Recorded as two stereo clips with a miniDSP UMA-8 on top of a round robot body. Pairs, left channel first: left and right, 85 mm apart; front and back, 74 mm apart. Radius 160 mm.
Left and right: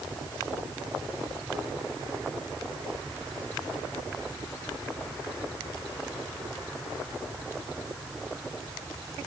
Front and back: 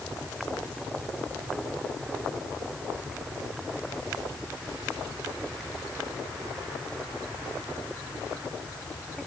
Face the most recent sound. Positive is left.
No sound to turn to.